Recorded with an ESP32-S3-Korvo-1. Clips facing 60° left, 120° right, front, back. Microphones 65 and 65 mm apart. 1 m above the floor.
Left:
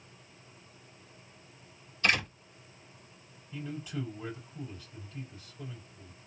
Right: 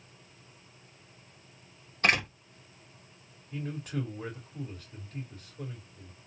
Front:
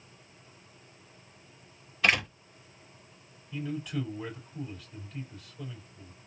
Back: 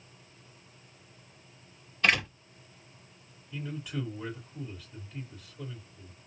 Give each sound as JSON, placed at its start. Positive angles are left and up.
{"t": 2.0, "sound": "a door slam", "azimuth_deg": -85, "distance_m": 2.0}
{"t": 3.5, "sound": "a man speaking", "azimuth_deg": -95, "distance_m": 3.0}